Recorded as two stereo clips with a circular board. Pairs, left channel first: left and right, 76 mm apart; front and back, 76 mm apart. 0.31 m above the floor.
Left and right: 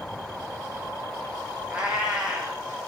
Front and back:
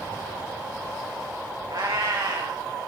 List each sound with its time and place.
1.7 s a cat meowing: 160° right, 4 m